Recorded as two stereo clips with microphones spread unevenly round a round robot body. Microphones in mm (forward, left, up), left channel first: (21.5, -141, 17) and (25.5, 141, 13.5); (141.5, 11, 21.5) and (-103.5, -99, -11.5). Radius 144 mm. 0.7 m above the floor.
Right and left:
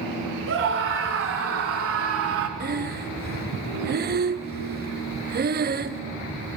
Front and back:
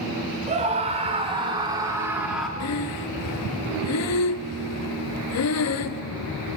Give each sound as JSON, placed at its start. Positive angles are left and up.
{"t": 0.5, "sound": "a scream", "azimuth_deg": 140, "distance_m": 3.0}
{"t": 2.6, "sound": "breathing", "azimuth_deg": 45, "distance_m": 0.8}